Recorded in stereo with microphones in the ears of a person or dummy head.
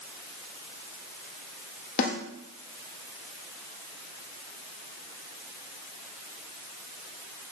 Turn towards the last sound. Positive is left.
turn(degrees=55)  # may be behind; listen again after turning